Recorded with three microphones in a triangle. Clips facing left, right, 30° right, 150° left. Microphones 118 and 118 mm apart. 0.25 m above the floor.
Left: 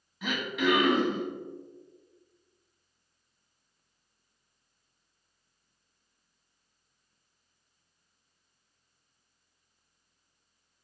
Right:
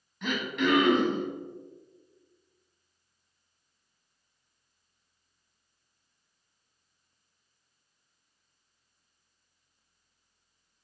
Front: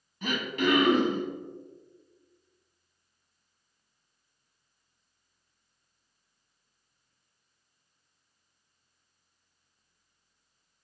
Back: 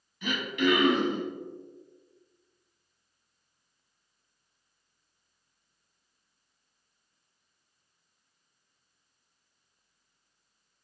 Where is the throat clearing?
5° left, 1.0 m.